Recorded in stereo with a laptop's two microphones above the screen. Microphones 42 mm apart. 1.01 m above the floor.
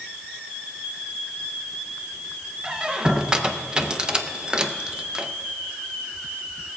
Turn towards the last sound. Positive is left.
turn(degrees=-20)  # may be behind; listen again after turning